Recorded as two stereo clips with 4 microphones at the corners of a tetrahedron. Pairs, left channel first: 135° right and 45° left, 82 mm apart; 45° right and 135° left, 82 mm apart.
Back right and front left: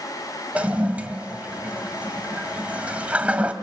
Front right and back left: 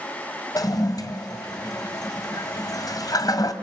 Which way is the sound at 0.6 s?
25° right.